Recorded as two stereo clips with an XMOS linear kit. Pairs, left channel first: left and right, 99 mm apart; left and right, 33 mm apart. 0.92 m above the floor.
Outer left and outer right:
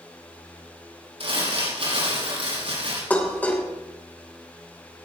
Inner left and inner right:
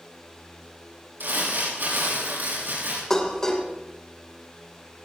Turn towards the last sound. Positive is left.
turn(degrees=15)  # may be behind; listen again after turning